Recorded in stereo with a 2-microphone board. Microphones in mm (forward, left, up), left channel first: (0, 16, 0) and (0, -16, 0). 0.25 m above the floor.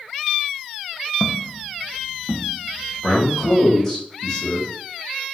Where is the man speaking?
20° left (ahead or behind), 1.2 m.